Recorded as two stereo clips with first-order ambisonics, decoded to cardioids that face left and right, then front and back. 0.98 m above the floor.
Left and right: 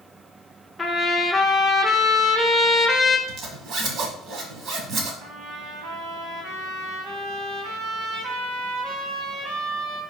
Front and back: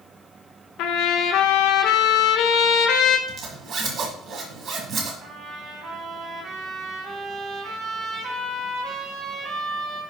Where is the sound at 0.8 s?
5° left, 0.8 m.